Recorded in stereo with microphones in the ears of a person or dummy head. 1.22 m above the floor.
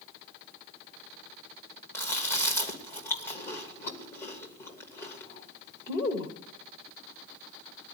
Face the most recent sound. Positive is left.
turn(degrees=20)  # may be behind; listen again after turning